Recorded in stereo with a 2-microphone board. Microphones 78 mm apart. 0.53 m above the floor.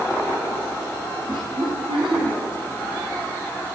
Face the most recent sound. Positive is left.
turn(degrees=-80)